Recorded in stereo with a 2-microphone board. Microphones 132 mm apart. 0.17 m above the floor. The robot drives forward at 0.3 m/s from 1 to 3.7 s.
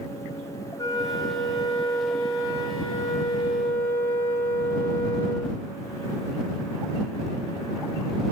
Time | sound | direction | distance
0.8 | a flute | 30° left (ahead or behind) | 2 m